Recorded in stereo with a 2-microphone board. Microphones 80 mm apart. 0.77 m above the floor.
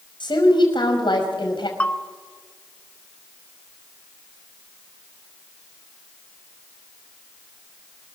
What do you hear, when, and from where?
0.2 s a woman speaking: 75° left (ahead or behind), 5 m
1.8 s a bell: 20° left (ahead or behind), 1.1 m